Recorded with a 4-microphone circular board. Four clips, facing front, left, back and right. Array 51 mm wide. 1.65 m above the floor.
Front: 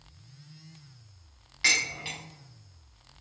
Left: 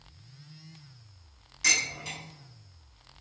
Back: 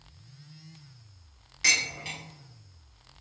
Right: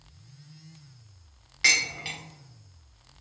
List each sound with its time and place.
1.6 s dishes clattering: 75° right, 0.8 m